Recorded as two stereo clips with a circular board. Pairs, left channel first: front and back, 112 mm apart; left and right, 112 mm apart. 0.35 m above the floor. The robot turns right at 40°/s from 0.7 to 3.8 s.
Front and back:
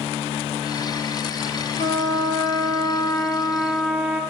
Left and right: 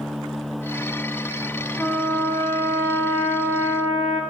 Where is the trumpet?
10° left, 4.5 m; by 4.2 s 90° left, 4.5 m.